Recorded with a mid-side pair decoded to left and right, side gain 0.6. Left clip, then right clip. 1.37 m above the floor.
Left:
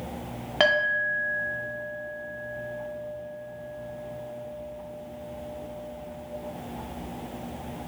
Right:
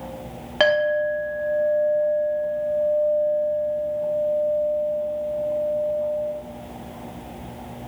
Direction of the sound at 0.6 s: 10° right.